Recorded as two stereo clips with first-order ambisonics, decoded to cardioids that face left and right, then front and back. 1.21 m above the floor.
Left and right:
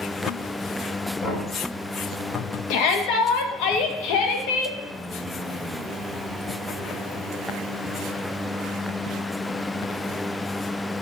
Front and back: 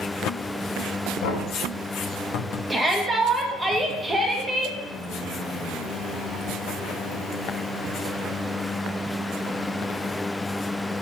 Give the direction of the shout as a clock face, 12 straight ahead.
9 o'clock.